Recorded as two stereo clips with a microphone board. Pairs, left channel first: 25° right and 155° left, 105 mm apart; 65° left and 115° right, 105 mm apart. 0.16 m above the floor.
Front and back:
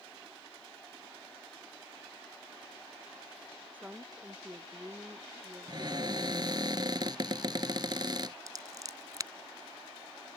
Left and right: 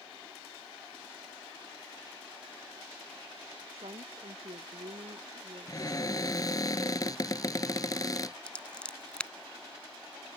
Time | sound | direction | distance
3.7 | a woman speaking | 130° right | ?
5.7 | a cupboard door | 115° left | ?
8.5 | scissors | 140° left | ?